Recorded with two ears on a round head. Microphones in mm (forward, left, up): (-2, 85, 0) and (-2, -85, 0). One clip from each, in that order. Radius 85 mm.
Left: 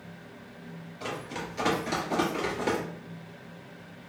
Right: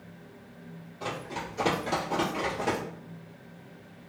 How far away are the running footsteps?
About 1.9 m.